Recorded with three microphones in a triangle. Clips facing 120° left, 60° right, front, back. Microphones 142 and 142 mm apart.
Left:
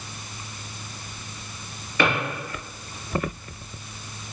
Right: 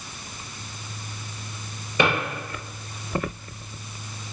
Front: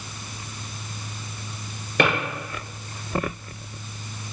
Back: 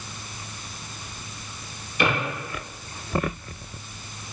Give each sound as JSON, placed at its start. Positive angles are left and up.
{"t": 2.0, "sound": "a drawer", "azimuth_deg": 10, "distance_m": 2.0}